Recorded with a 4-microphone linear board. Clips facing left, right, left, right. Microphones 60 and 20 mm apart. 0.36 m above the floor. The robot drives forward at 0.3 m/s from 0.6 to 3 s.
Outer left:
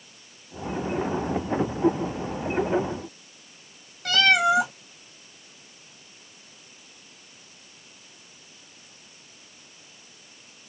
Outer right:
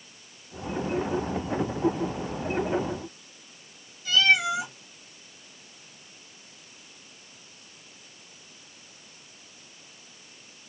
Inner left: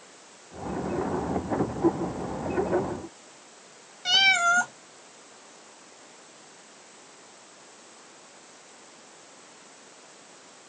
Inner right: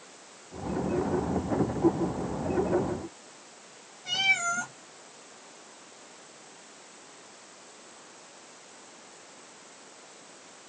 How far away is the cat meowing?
About 1.3 m.